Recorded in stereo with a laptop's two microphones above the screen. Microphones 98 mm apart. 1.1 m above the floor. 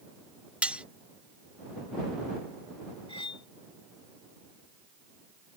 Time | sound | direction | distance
0.6 | cutlery clinking | 10° right (ahead or behind) | ?
3.1 | cutlery clinking | 65° left (ahead or behind) | ?